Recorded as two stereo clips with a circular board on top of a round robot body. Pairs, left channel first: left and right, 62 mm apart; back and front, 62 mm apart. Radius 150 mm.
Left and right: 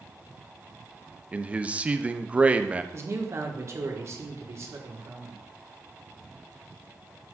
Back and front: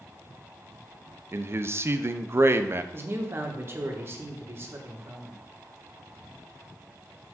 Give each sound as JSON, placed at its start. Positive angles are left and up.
{"t": 1.3, "sound": "a man speaking", "azimuth_deg": -30, "distance_m": 0.8}
{"t": 2.9, "sound": "a man speaking", "azimuth_deg": -50, "distance_m": 1.8}